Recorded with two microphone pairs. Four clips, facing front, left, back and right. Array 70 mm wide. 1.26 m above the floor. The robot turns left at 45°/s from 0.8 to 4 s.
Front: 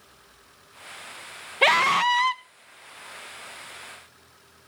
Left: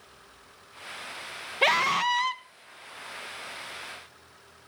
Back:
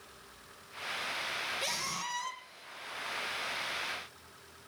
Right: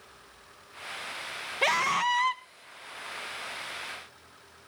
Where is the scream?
5° left, 1.3 m; by 2.4 s 35° right, 1.3 m.